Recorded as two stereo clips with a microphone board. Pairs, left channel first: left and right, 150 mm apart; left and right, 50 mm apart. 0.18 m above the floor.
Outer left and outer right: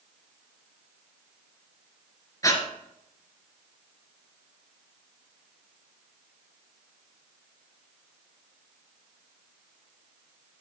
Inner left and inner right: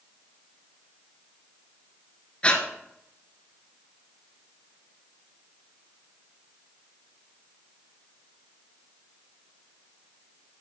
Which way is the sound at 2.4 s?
25° left (ahead or behind).